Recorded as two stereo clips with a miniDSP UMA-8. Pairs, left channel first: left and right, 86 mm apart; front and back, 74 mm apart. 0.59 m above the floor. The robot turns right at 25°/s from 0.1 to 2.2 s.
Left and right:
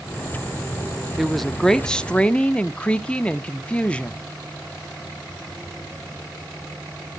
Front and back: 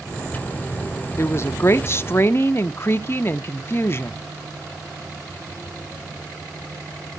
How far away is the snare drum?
I don't hear a snare drum.